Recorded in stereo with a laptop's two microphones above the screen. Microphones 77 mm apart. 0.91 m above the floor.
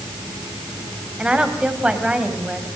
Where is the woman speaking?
10° right (ahead or behind), 4.5 m.